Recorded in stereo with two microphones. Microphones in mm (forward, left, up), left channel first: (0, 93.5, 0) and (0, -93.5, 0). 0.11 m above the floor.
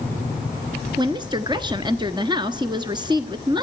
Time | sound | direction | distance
1.0 | a woman speaking | 25° right (ahead or behind) | 1.2 m